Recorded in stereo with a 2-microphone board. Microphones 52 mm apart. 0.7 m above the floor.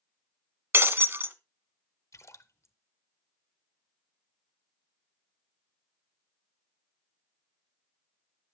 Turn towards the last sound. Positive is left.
turn(degrees=70)  # may be behind; listen again after turning